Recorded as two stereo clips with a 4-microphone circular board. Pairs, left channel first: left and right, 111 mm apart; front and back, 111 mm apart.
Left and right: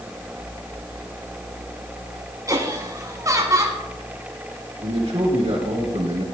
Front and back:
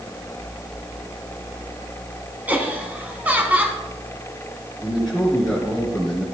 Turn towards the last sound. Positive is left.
turn(degrees=-90)